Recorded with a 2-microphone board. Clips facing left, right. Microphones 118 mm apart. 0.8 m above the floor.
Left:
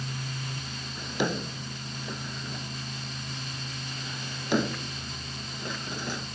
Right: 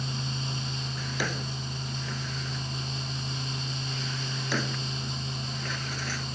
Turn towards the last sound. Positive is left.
turn(degrees=20)  # may be behind; listen again after turning